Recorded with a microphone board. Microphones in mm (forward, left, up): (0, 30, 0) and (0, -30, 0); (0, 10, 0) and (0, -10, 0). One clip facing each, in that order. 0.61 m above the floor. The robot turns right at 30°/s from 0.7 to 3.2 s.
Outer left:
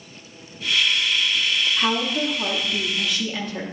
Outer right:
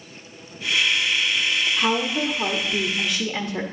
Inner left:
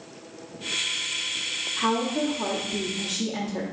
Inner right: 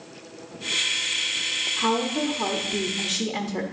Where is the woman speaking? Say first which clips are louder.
Outer right 1 dB, inner left 2 dB; 165° left, 0.8 m; by 3.6 s 150° right, 0.8 m.